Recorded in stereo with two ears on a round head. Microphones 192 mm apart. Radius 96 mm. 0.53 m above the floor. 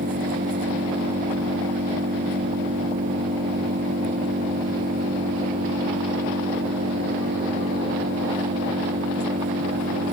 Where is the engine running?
40° right (ahead or behind).